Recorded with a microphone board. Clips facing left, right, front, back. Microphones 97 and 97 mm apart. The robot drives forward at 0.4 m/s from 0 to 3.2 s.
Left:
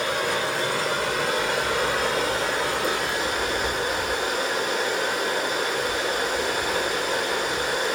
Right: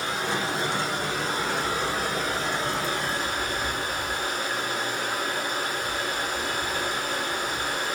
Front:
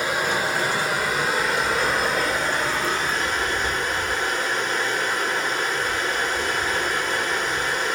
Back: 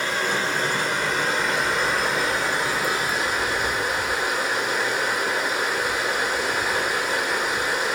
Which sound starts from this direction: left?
Running water, at 0.0 s.